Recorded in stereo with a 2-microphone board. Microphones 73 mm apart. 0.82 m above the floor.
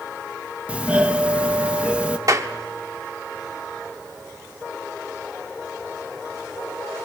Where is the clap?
50° right (ahead or behind), 1.3 m.